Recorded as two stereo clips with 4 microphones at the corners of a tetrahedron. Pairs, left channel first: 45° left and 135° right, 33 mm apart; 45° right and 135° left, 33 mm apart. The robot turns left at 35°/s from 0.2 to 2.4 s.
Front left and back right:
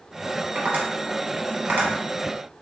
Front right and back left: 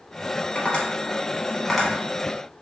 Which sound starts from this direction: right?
Tapping, at 0.6 s.